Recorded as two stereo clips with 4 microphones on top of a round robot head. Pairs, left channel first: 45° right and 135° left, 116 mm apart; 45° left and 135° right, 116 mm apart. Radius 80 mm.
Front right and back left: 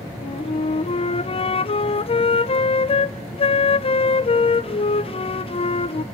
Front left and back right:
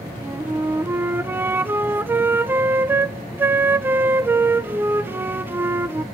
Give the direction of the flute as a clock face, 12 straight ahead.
2 o'clock.